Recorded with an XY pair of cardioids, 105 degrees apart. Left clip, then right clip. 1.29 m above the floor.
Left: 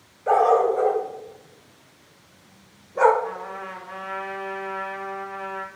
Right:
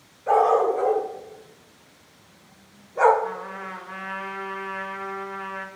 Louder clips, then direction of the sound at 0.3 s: Left 1 dB; 45° left.